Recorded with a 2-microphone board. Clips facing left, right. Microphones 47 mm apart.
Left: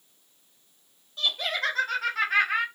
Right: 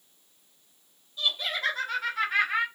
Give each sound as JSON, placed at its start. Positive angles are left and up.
{"t": 1.2, "sound": "laughter", "side_deg": 65, "distance_m": 1.5}